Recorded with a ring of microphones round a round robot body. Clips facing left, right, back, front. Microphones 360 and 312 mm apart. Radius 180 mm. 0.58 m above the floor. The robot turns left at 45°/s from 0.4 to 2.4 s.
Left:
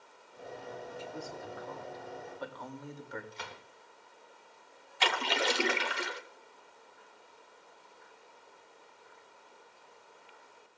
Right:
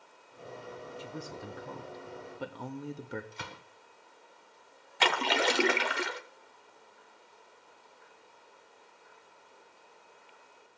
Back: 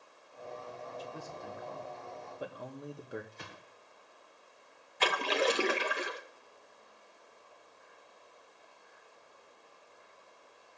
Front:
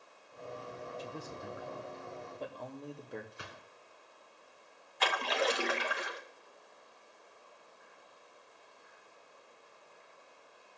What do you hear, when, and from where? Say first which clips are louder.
1.0 s a man speaking: right 1 dB, front 1 dB; 40° right, 0.9 m; by 3.2 s 105° right, 0.9 m
3.3 s a gunshot: right 1 dB, even; 80° right, 1.1 m
5.0 s a splash: right 3 dB, back 3 dB; 120° right, 0.9 m